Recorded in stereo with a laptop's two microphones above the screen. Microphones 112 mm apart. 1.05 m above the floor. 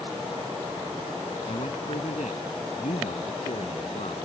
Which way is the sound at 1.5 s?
75° left (ahead or behind).